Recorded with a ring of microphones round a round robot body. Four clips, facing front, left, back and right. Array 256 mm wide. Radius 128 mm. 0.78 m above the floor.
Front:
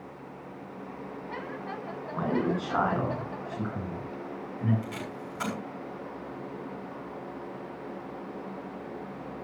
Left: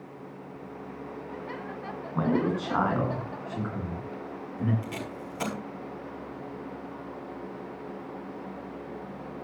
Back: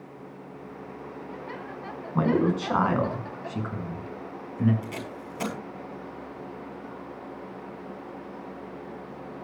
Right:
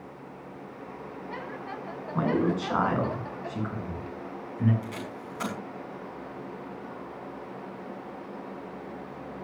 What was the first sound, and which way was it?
A man speaking, 175° right.